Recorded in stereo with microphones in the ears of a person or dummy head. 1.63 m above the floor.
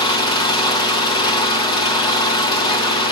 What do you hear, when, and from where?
0.0 s an engine running: 25° left (ahead or behind), 1.5 m